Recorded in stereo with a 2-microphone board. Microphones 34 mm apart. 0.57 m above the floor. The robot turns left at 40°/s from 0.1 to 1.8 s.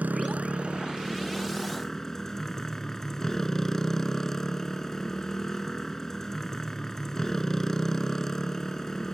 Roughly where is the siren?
No siren in this recording.